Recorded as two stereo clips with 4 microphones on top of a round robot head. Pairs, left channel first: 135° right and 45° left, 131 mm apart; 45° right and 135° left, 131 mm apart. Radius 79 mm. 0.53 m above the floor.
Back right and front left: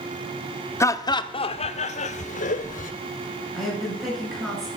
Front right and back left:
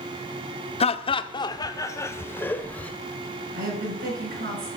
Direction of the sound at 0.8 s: 70° right.